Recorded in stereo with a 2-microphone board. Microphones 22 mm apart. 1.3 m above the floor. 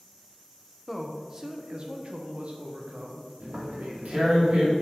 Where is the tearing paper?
75° right (ahead or behind), 2 m.